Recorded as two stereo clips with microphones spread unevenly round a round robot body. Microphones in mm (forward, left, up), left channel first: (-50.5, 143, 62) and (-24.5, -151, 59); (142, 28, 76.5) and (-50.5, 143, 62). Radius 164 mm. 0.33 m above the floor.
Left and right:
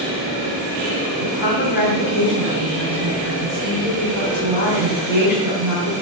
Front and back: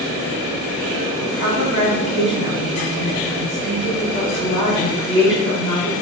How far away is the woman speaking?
About 2.5 m.